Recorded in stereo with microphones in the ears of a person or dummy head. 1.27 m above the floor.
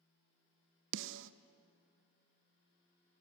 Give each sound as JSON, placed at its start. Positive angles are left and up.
{"t": 0.9, "sound": "a snare drum", "side_deg": -70, "distance_m": 0.7}